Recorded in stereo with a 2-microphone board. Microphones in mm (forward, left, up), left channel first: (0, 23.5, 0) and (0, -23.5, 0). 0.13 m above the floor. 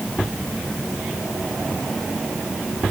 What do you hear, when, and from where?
Only background noise.